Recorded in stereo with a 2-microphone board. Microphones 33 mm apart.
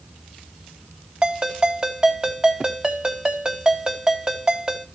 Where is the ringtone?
25° right (ahead or behind), 3.5 m.